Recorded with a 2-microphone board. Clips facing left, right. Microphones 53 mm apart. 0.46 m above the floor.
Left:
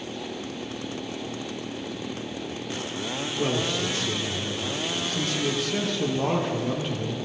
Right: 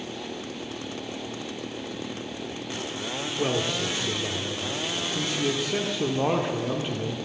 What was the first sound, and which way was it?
A man speaking, 20° right (ahead or behind).